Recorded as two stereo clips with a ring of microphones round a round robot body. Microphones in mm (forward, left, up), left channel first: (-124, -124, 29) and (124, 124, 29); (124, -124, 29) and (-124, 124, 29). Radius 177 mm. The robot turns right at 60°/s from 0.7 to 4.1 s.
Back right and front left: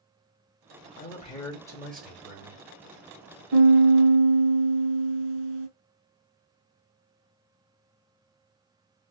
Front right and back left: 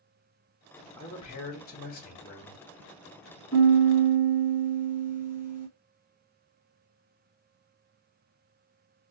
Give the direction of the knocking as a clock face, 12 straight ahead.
I don't hear knocking.